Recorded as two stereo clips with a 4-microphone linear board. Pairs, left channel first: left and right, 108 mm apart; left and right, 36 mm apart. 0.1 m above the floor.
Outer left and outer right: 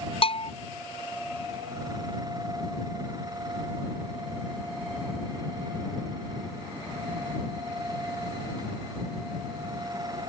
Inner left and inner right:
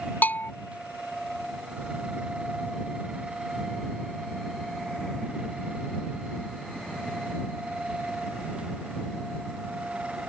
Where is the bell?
65° left (ahead or behind).